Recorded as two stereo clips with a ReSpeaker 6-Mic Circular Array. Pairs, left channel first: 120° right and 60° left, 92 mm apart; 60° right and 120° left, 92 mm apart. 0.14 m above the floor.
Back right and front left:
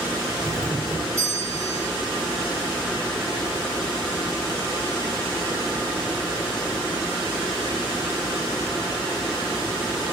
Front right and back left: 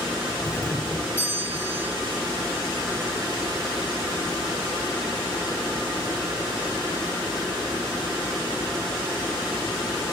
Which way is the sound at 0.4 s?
5° left.